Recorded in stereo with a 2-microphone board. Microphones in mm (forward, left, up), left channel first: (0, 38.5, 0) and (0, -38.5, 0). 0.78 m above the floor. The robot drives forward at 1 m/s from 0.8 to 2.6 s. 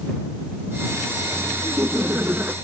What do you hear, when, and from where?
1.6 s laughter: 30° right (ahead or behind); by 2.5 s 25° right (ahead or behind)